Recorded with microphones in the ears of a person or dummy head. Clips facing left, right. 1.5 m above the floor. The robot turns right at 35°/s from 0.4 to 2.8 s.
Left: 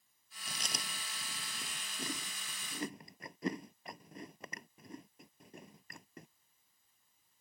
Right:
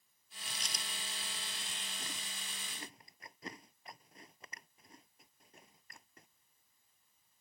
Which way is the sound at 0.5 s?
40° left (ahead or behind).